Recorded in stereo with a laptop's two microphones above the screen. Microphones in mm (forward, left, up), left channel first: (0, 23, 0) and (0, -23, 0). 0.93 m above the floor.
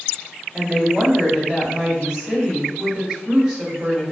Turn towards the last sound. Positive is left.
turn(degrees=-15)  # may be behind; listen again after turning